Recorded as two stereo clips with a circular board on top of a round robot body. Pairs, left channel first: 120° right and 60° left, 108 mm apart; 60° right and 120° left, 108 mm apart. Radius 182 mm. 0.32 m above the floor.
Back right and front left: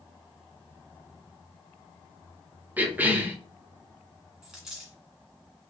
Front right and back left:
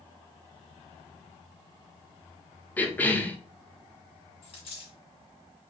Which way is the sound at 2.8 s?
Straight ahead.